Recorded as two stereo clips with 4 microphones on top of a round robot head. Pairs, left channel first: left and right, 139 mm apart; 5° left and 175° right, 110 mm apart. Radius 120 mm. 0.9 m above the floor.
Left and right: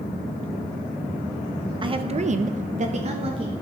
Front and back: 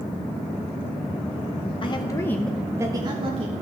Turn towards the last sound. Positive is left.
turn(degrees=-145)